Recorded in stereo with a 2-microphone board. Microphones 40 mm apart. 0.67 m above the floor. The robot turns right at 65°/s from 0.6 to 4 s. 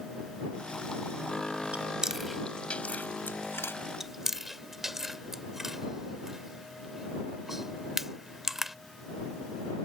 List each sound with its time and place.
1.7 s chewing: 35° right (ahead or behind); by 3.7 s 85° left
4.0 s chewing: 10° right (ahead or behind)